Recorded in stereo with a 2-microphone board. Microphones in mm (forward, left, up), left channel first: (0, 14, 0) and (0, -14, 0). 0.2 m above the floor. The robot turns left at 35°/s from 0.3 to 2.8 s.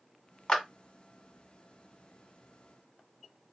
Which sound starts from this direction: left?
A clap, at 0.5 s.